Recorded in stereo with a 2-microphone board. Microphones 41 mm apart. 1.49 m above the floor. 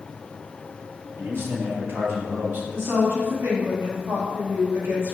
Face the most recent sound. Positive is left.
turn(degrees=-75)  # may be behind; listen again after turning